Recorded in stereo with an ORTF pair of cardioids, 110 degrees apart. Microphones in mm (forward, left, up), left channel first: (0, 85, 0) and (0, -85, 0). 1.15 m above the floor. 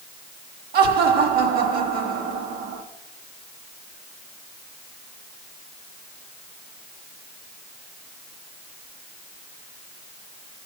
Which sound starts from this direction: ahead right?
Laughter, at 0.7 s.